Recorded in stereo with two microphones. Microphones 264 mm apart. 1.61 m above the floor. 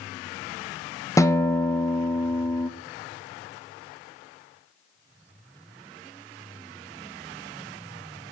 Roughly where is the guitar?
Centre.